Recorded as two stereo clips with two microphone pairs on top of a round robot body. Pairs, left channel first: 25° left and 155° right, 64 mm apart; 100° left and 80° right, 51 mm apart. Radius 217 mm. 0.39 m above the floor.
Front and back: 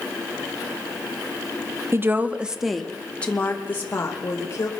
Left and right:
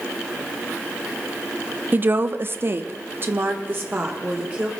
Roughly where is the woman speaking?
Right.